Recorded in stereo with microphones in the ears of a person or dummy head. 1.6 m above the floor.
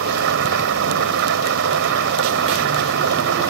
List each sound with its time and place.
0.0 s an engine running: 65° right (ahead or behind)